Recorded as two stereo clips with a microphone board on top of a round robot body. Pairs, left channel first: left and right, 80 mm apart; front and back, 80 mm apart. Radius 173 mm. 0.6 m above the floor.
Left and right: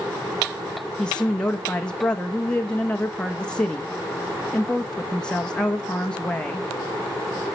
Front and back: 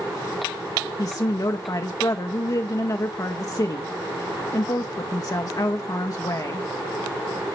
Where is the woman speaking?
15° left, 1.1 m.